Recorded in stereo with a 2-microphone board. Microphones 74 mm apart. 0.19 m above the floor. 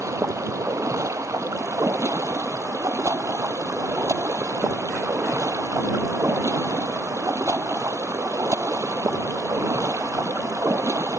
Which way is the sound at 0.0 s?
45° right (ahead or behind).